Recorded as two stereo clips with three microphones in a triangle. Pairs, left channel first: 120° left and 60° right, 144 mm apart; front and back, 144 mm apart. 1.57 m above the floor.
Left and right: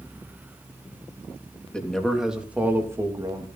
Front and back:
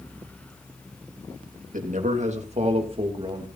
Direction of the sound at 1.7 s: 155° right.